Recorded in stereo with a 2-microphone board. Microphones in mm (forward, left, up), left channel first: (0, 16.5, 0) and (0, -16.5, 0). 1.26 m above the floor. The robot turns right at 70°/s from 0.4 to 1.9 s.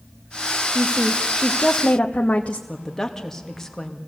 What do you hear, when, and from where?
0.8 s a woman speaking: 40° right, 1.2 m; by 2.6 s 40° left, 1.2 m
2.7 s a woman speaking: 15° left (ahead or behind), 2.5 m